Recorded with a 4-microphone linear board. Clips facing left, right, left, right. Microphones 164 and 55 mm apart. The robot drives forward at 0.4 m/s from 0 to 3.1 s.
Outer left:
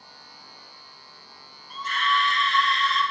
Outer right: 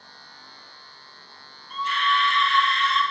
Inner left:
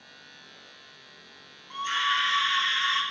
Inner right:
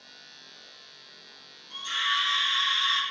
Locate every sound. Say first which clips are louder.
1.7 s a scream: outer right 1 dB, inner left 3 dB; 45° left (ahead or behind), 1.4 m; by 3.0 s 35° left (ahead or behind), 1.7 m